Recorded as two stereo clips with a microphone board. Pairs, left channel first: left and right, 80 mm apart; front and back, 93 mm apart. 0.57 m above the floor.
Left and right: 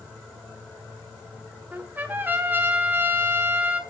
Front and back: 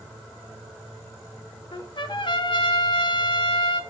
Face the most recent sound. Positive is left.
turn(degrees=-25)